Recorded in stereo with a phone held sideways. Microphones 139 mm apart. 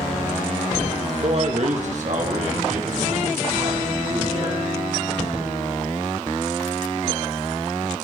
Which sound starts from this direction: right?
A man speaking, at 1.2 s.